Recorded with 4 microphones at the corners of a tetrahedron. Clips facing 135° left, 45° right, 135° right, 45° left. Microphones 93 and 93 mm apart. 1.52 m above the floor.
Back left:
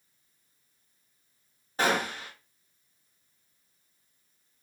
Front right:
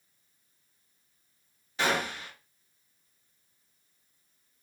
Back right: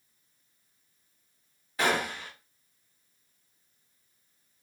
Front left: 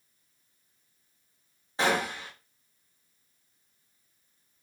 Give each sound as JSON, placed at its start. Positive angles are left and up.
{"t": 1.8, "sound": "a gunshot", "azimuth_deg": 95, "distance_m": 1.0}